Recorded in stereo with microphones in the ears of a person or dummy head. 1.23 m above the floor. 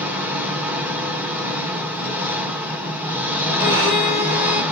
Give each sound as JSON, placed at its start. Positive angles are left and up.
{"t": 0.0, "sound": "an engine running", "side_deg": -15, "distance_m": 0.9}
{"t": 3.6, "sound": "a violin", "side_deg": -35, "distance_m": 1.8}